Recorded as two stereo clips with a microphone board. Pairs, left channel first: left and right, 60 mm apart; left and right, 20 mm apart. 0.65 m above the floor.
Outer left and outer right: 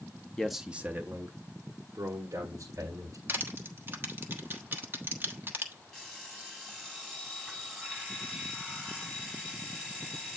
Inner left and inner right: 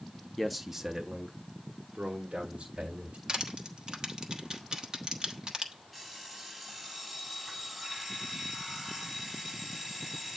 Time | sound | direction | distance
0.4 | a man speaking | 10° left (ahead or behind) | 0.6 m
3.3 | crushing | 40° right (ahead or behind) | 1.3 m
5.9 | an alarm clock | 5° left (ahead or behind) | 6 m